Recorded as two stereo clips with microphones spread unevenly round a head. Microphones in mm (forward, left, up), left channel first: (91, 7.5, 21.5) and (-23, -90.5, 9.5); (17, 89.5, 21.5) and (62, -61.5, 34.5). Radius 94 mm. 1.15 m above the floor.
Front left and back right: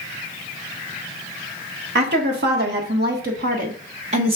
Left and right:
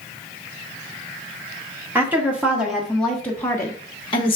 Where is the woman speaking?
155° right, 1.8 m; by 4.4 s 160° left, 1.1 m.